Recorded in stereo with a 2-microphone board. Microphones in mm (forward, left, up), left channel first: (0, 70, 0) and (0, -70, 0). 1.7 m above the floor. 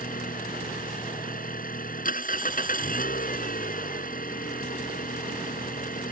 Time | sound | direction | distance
0.0 | an engine running | 85° left | ?